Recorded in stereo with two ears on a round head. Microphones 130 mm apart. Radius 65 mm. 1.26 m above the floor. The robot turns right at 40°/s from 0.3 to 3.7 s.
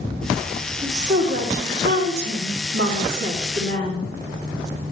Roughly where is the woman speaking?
Behind.